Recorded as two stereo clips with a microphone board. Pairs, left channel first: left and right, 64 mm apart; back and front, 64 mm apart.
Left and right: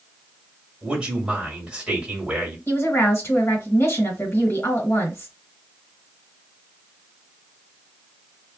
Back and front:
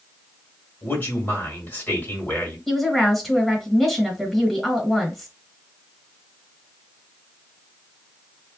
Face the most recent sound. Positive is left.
turn(degrees=95)